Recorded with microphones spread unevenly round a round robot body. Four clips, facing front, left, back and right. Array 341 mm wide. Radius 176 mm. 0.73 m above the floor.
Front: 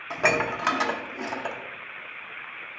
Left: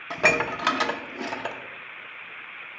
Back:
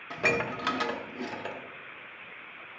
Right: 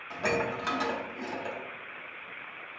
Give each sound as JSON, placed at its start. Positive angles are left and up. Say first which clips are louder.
{"t": 0.1, "sound": "dishes clattering", "louder": "left 5 dB, front 5 dB", "azimuth_deg": 65, "distance_m": 0.8}